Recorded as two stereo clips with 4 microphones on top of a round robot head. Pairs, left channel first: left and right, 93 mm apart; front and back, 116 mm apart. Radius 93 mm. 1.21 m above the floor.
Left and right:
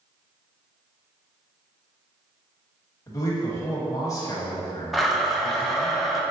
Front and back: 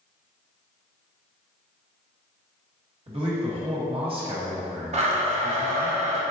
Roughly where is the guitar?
No guitar in this recording.